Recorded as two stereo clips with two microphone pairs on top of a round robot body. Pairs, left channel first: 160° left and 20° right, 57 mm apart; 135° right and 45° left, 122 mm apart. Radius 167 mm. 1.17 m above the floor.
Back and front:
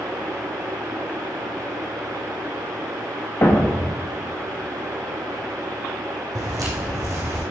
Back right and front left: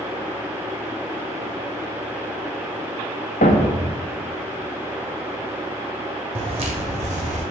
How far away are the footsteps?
About 2.5 m.